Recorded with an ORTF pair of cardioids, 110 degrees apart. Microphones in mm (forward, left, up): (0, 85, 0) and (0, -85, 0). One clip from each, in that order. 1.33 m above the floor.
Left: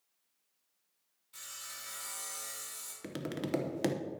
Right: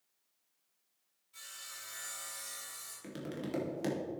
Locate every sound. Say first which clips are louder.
1.3 s sawing: left 2 dB; 50° left, 3 m
3.0 s tapping: left 4 dB; 35° left, 0.8 m